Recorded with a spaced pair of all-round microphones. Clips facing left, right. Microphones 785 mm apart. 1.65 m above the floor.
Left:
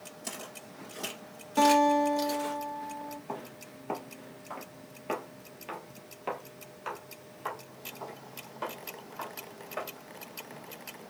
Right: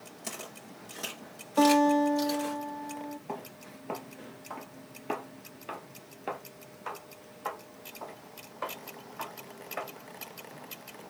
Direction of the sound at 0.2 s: 40° right (ahead or behind).